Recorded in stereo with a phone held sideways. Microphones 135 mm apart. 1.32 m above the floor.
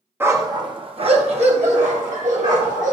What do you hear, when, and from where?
0.2 s a dog barking: 15° right (ahead or behind), 0.7 m; by 2.9 s 70° right (ahead or behind), 1.9 m